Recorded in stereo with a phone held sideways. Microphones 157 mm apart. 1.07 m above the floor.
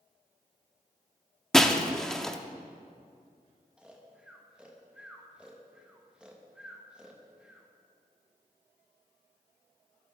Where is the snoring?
5° right (ahead or behind), 1.1 m.